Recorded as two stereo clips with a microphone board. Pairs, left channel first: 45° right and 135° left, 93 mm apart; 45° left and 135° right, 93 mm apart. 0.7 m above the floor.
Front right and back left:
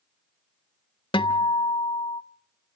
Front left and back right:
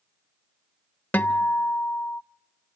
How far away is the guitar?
About 0.8 m.